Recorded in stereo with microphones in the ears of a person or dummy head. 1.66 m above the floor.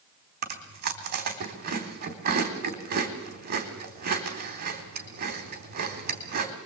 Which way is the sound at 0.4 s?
50° right (ahead or behind).